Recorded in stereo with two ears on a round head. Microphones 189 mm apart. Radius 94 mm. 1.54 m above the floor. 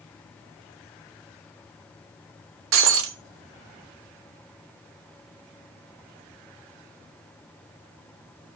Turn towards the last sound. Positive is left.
turn(degrees=-70)  # may be behind; listen again after turning